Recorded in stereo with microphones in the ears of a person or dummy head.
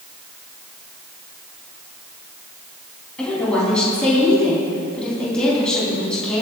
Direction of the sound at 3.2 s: Centre (ahead or behind).